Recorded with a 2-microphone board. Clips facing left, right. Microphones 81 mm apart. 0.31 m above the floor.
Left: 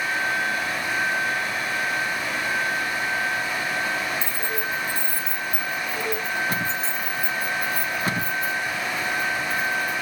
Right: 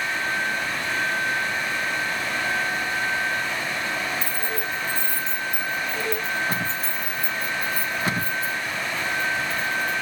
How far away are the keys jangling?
About 1.4 m.